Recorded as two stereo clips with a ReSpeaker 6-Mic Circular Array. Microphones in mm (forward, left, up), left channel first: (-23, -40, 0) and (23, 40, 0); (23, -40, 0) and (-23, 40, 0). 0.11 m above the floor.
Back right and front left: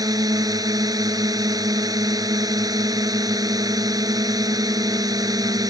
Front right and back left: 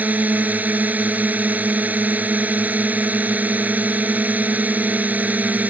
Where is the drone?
55° left.